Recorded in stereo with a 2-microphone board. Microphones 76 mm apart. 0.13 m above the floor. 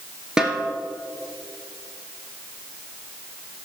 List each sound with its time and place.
0.4 s a snare drum: 10° right (ahead or behind), 1.6 m